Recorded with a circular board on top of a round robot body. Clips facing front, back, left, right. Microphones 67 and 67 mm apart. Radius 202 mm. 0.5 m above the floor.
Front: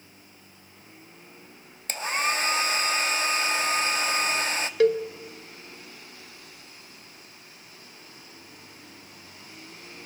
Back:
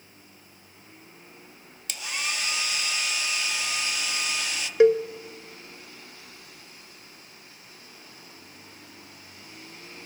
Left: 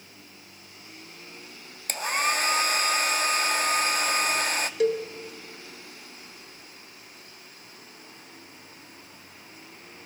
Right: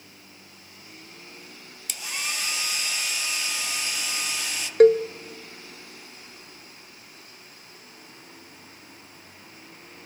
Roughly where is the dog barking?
No dog barking in this recording.